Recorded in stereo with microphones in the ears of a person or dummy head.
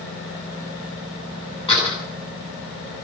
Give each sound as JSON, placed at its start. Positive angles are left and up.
{"t": 1.7, "sound": "a door slam", "side_deg": 30, "distance_m": 10.0}